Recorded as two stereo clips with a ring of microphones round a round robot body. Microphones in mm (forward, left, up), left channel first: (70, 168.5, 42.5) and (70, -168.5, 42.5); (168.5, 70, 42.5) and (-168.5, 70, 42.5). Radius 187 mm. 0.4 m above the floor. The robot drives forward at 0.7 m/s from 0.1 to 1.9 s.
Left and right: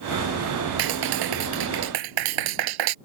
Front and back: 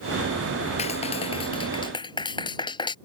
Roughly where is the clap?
Right.